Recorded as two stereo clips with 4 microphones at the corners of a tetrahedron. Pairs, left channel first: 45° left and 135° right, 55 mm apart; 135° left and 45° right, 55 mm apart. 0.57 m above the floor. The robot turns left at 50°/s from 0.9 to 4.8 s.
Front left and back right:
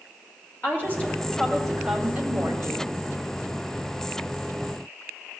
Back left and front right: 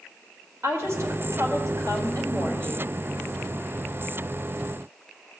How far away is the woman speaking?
About 1.8 m.